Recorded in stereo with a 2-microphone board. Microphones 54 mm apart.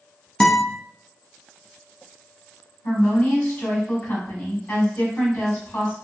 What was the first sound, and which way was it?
A guitar, 10° left (ahead or behind).